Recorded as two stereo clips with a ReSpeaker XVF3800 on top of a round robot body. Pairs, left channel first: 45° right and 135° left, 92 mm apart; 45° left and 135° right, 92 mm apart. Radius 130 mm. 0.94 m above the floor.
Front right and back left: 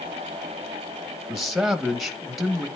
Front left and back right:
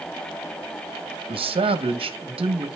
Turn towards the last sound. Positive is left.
turn(degrees=-135)